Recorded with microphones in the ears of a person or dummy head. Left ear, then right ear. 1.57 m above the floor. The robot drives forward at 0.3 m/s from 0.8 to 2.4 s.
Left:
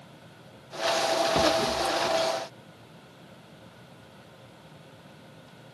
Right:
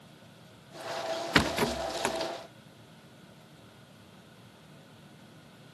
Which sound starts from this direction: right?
A rattle, at 1.4 s.